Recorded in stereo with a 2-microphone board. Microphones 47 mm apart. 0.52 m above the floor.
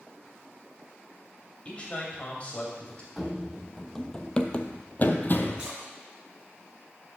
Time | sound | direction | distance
1.6 | a man speaking | 30° left (ahead or behind) | 2 m
3.2 | running footsteps | 5° right (ahead or behind) | 0.9 m
5.6 | a splash | 20° right (ahead or behind) | 4.5 m